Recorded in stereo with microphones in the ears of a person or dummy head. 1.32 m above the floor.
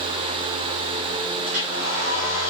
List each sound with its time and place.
1.4 s a hair dryer: 55° right (ahead or behind), 1.3 m